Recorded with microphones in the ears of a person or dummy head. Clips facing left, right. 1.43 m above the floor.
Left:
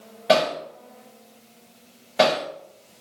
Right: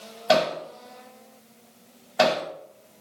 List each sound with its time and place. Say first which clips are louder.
0.3 s hammering: left 2 dB; 30° left (ahead or behind), 0.8 m